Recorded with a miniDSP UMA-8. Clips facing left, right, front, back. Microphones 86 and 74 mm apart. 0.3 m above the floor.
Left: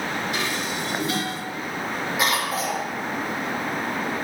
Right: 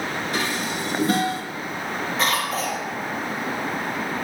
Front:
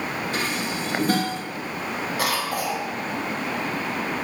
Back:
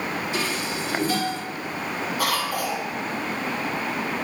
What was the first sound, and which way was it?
Dishes clattering, 40° right.